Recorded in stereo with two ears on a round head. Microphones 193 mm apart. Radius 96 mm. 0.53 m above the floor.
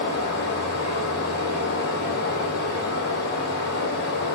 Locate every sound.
0.0 s running water: 55° left (ahead or behind), 3 m